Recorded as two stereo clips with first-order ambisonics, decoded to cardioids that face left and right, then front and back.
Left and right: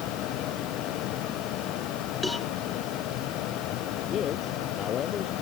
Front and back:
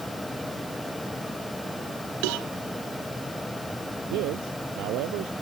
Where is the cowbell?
175° left.